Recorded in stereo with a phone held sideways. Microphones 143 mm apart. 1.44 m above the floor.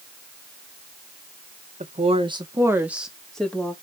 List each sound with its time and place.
1.8 s a woman speaking: 55° right (ahead or behind), 1.8 m; by 3.8 s 10° left (ahead or behind), 3 m